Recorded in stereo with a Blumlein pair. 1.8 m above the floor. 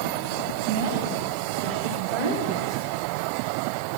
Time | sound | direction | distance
0.7 | a woman speaking | 50° right | 10 m